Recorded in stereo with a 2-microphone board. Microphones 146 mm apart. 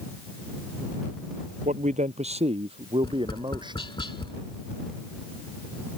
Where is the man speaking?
60° right (ahead or behind); by 3.9 s 30° right (ahead or behind).